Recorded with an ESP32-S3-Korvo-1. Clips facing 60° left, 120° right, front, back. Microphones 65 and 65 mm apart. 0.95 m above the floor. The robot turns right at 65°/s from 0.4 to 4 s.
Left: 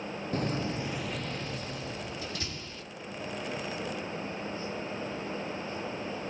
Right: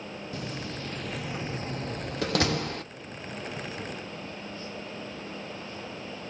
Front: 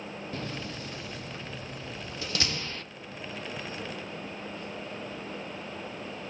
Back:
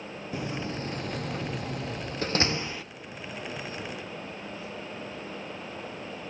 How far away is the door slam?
About 0.9 m.